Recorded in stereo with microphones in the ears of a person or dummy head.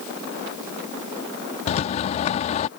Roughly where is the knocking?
I don't hear knocking.